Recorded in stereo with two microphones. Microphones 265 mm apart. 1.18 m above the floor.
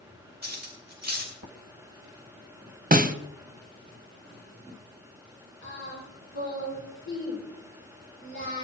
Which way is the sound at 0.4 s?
40° right (ahead or behind).